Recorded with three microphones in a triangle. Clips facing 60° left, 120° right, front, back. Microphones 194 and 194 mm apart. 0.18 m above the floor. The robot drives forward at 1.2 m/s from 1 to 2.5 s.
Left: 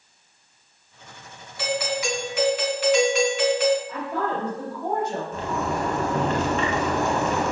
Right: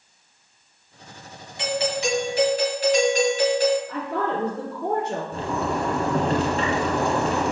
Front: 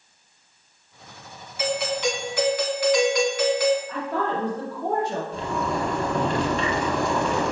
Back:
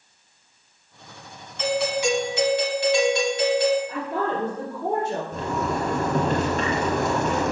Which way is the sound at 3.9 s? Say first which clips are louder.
Right 1 dB, even; 115° right.